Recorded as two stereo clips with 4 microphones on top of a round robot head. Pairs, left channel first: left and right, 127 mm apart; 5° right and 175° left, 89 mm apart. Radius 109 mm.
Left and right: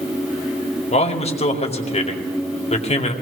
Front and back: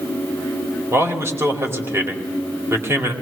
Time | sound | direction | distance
0.9 | a man speaking | 115° left | 2 m